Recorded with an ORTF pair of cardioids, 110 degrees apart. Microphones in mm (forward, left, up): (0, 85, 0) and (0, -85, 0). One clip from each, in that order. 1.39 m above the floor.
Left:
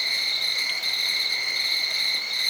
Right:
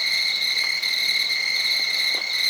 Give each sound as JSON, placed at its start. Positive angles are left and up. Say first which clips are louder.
{"t": 0.0, "sound": "an insect", "louder": "right 2 dB", "azimuth_deg": -40, "distance_m": 1.3}